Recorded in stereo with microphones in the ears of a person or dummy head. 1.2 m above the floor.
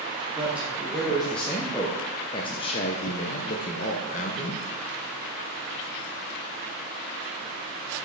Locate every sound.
0.3 s a man speaking: centre (ahead or behind), 1.8 m; by 4.6 s 35° left (ahead or behind), 1.3 m